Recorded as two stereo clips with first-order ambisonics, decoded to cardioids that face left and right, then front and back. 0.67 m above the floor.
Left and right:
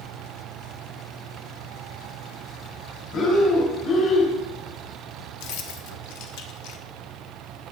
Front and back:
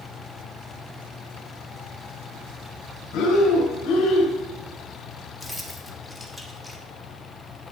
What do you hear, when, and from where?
3.1 s breathing: 45° left, 2.5 m
5.4 s keys jangling: 95° left, 0.9 m